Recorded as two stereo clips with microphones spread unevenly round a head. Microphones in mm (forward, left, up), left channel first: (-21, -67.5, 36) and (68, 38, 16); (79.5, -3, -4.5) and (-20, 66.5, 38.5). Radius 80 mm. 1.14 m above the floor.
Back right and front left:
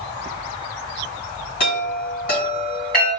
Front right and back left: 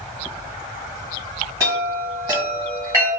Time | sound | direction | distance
1.6 | a chime | 155° right | 1.7 m